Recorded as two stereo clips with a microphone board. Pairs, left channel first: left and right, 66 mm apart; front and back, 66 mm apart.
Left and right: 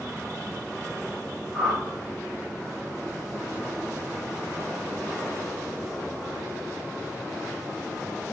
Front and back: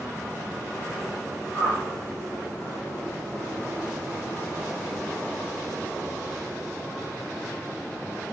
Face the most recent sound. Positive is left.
turn(degrees=-5)